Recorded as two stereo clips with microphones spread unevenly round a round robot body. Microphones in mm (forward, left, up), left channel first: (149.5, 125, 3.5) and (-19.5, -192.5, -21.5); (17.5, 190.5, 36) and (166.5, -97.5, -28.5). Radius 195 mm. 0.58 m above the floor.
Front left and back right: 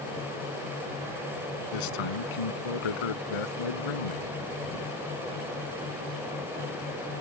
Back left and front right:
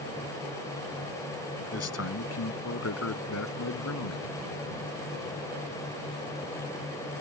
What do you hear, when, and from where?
1.7 s a man speaking: 70° left; by 4.4 s 80° left